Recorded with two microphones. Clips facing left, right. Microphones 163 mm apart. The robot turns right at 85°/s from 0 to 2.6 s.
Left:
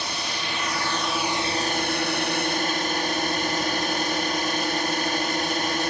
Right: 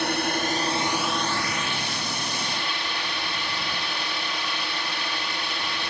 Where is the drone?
95° right; by 5.9 s 130° left.